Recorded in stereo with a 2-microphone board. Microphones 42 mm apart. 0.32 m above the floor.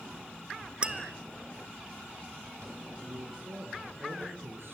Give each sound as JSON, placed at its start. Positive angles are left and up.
{"t": 0.8, "sound": "tapping", "side_deg": -25, "distance_m": 1.0}
{"t": 3.0, "sound": "a man speaking", "side_deg": -65, "distance_m": 5.5}